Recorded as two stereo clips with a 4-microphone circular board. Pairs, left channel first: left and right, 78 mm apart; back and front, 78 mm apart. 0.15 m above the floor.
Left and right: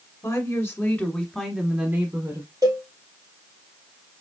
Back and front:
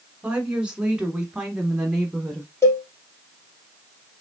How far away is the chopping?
No chopping in this recording.